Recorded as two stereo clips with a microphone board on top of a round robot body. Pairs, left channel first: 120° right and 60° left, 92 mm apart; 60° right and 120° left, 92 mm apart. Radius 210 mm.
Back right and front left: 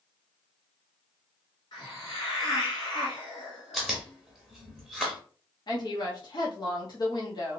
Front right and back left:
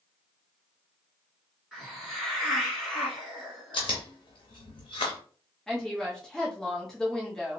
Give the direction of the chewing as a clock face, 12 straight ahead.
1 o'clock.